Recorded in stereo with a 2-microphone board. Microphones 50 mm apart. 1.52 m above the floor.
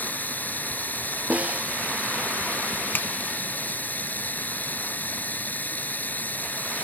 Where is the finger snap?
40° left (ahead or behind).